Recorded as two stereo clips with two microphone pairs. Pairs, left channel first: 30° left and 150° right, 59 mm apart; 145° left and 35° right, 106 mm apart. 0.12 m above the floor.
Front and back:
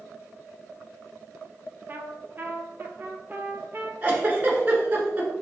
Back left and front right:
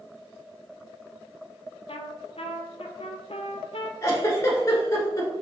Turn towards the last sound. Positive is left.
turn(degrees=-175)